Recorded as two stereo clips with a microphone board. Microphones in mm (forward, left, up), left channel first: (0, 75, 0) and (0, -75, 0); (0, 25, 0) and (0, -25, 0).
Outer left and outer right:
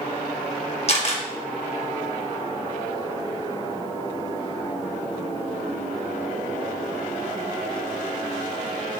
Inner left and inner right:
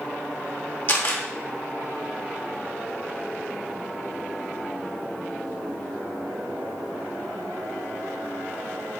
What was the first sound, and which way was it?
A camera shutter, 45° left (ahead or behind).